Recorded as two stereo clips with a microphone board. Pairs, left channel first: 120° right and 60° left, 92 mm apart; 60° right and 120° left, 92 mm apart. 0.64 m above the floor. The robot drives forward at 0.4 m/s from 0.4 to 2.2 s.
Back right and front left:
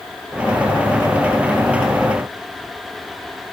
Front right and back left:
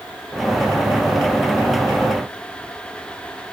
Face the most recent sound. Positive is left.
No sound to turn to.